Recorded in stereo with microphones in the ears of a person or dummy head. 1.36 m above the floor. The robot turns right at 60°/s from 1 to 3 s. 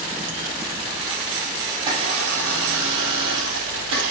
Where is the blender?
155° right, 3 m; by 4.1 s 80° right, 3 m.